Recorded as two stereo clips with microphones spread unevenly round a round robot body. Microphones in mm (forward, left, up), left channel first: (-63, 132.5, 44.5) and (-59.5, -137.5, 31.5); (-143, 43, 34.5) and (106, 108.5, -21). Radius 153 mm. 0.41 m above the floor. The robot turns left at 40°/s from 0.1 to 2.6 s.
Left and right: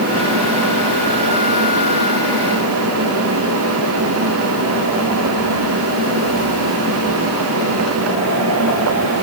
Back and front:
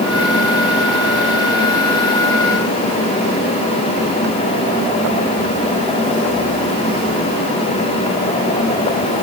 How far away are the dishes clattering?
I don't hear dishes clattering.